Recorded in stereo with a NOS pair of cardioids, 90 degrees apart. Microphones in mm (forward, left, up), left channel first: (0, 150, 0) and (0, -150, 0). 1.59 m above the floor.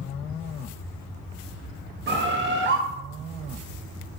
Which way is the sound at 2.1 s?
40° right.